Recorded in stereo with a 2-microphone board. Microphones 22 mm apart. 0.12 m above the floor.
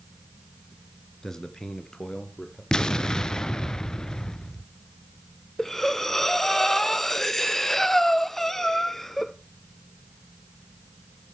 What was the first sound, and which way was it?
A man speaking, 20° left (ahead or behind).